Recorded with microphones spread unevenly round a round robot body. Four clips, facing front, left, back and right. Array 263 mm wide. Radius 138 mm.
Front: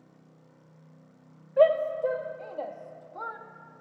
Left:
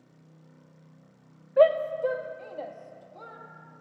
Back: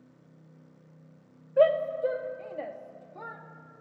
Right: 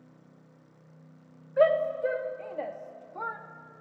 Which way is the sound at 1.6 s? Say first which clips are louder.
Left 2 dB, front 1 dB; 150° left.